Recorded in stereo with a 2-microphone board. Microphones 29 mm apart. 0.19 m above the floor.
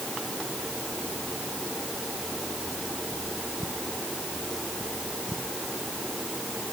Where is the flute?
I don't hear a flute.